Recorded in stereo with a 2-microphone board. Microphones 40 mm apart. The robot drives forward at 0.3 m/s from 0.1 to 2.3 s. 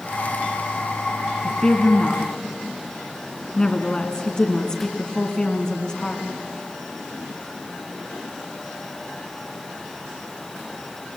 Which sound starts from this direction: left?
A woman speaking, at 1.4 s.